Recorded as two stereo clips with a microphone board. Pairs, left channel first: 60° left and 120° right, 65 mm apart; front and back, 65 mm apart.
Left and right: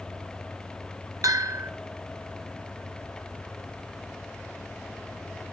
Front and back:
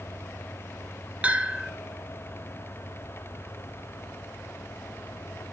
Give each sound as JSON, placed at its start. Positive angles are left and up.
{"t": 1.2, "sound": "a bell", "azimuth_deg": -115, "distance_m": 0.8}